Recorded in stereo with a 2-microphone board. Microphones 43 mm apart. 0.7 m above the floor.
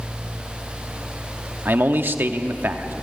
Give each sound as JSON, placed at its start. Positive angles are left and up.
{"t": 1.6, "sound": "a man speaking", "side_deg": -55, "distance_m": 1.2}